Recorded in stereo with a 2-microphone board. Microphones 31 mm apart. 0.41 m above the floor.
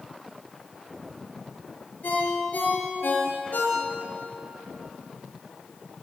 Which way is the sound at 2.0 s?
80° left.